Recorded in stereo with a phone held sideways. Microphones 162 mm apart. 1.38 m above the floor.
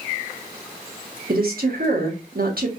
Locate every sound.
1.3 s a woman speaking: 65° right (ahead or behind), 0.9 m